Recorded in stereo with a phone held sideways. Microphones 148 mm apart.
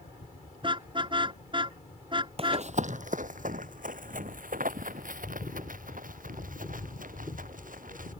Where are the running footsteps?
45° right (ahead or behind); by 8.1 s 70° right (ahead or behind).